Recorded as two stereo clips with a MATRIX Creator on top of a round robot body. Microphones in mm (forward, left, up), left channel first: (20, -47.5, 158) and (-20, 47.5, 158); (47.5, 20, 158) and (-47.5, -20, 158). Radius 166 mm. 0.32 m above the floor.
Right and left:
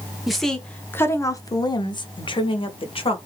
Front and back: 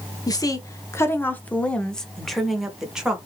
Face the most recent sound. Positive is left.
turn(degrees=-75)